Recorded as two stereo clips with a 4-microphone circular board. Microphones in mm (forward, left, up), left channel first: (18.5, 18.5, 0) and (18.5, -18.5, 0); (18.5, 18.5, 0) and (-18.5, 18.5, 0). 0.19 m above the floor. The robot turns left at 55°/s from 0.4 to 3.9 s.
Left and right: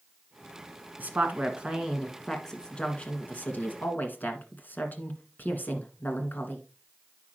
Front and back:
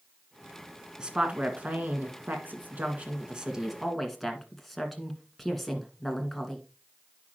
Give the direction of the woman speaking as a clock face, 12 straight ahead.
4 o'clock.